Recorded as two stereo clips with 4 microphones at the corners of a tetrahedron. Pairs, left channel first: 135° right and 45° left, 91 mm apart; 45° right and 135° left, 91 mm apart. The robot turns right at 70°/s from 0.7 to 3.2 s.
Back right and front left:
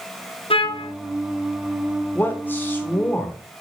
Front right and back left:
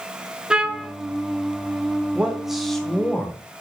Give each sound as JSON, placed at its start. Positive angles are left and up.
{"t": 0.5, "sound": "a trumpet", "azimuth_deg": -145, "distance_m": 1.0}
{"t": 2.1, "sound": "a man speaking", "azimuth_deg": -170, "distance_m": 1.2}